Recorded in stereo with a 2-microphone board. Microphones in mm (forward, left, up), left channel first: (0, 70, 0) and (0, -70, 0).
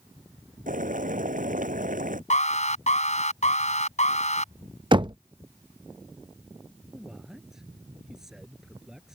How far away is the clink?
No clink in this recording.